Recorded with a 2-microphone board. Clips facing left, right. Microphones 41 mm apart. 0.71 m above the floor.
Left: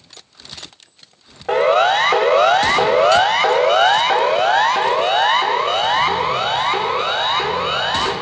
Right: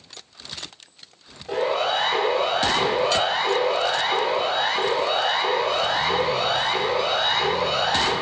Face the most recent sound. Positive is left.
turn(degrees=40)  # may be behind; listen again after turning